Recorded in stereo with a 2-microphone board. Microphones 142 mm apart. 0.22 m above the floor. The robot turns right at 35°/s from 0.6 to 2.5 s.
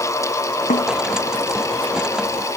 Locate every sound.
0.7 s a snare drum: 85° left